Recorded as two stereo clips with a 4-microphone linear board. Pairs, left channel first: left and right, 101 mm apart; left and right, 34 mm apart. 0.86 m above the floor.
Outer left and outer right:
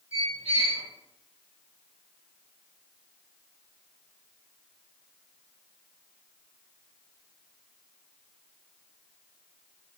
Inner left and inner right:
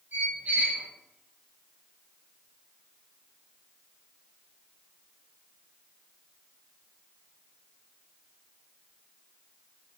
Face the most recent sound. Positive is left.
turn(degrees=-70)  # may be behind; listen again after turning